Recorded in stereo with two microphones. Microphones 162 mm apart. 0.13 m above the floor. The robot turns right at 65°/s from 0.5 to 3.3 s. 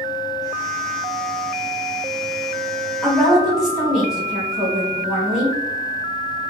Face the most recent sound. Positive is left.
turn(degrees=0)  # may be behind; listen again after turning